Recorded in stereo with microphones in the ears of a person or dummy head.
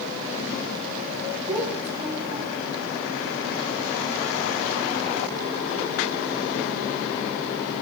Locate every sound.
1.5 s a child speaking: 10° right (ahead or behind), 7.5 m